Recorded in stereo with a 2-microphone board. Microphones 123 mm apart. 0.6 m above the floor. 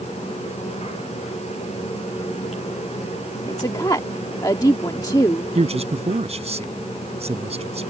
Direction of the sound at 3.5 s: 30° left (ahead or behind).